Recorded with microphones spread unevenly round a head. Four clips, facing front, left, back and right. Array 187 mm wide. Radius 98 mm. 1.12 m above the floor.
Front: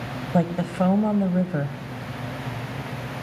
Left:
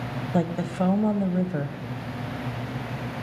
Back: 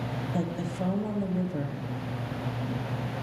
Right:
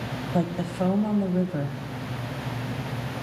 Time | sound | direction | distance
0.3 | a woman speaking | 30° left | 0.8 m